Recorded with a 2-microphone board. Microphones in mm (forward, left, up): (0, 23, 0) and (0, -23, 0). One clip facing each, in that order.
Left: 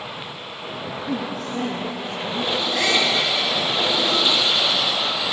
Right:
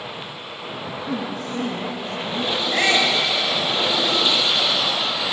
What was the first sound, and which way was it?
A woman speaking, 35° right (ahead or behind).